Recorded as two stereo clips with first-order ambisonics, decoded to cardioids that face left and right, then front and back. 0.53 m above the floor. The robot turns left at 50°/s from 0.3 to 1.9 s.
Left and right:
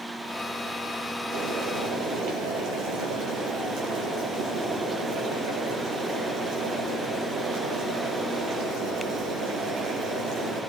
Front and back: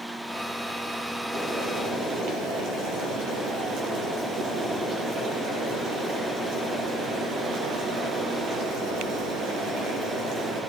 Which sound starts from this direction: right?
Boiling, at 1.3 s.